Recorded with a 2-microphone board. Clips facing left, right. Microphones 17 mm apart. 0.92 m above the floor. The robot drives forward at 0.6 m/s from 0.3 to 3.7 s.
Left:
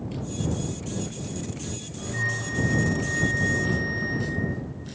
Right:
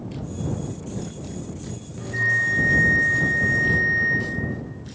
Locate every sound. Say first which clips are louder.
2.0 s a bell: right 8 dB; 75° right (ahead or behind), 3.5 m